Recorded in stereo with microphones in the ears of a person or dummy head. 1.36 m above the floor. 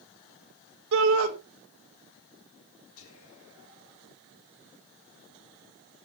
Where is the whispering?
85° left, 2.5 m.